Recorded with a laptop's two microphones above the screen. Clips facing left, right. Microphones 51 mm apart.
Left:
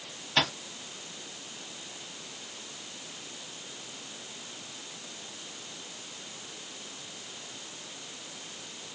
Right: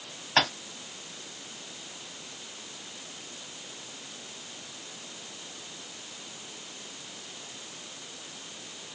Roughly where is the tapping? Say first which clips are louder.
Right 3 dB; right.